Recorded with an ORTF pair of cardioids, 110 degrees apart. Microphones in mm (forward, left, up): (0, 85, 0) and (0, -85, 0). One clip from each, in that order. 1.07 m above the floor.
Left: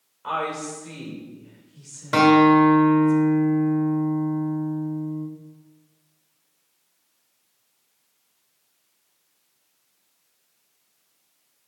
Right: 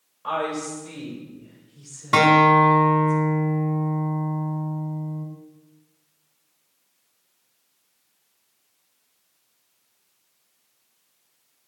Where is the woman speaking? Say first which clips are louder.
Right 1 dB; 10° left, 4.5 m; by 3.1 s 40° left, 4.5 m.